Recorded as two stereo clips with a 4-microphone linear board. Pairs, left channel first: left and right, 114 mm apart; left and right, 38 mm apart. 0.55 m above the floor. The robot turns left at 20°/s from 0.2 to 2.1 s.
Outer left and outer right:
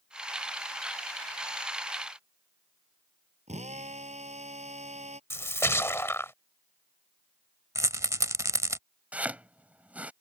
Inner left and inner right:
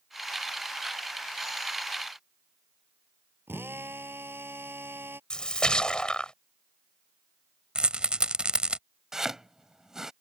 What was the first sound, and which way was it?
A drill, 80° right.